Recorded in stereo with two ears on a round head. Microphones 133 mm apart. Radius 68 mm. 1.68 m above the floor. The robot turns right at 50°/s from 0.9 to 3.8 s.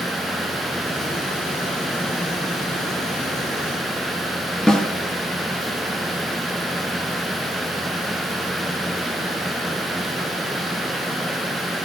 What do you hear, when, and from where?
4.7 s a snare drum: 5° left (ahead or behind), 0.5 m